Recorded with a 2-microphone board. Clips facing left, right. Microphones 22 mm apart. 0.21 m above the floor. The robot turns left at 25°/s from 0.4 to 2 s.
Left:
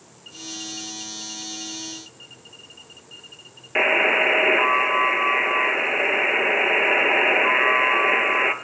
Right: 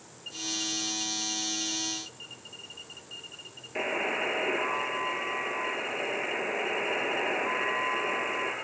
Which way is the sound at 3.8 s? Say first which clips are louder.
Left 12 dB; 45° left (ahead or behind).